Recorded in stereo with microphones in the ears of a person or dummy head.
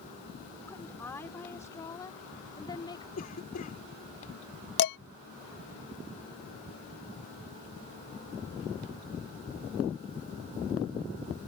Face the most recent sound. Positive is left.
turn(degrees=60)  # may be behind; listen again after turning